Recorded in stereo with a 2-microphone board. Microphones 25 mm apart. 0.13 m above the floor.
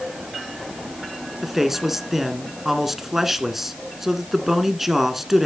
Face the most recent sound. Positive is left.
turn(degrees=-15)  # may be behind; listen again after turning